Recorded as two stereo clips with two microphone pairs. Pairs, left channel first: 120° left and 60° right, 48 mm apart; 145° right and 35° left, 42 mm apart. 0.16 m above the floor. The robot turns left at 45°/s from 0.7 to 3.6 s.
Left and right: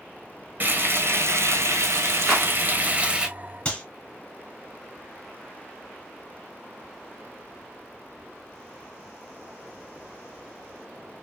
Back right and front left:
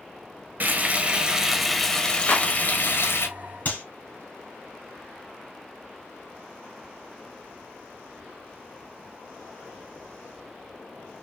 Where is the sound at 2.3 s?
145° right, 1.5 m; by 2.5 s 155° right, 1.5 m.